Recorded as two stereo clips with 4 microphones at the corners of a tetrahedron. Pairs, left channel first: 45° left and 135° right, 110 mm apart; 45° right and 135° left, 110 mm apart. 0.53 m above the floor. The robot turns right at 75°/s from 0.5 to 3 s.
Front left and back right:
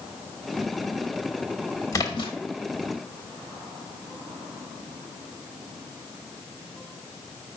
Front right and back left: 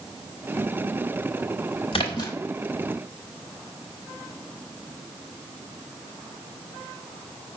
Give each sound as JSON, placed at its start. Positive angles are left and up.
{"t": 1.9, "sound": "a splash", "azimuth_deg": -15, "distance_m": 0.8}